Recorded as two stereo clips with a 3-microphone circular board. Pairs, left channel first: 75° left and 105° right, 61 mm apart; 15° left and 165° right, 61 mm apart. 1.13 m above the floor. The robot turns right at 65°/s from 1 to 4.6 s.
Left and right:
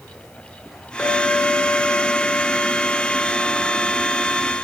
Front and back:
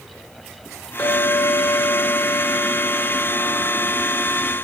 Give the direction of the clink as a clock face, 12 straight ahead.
12 o'clock.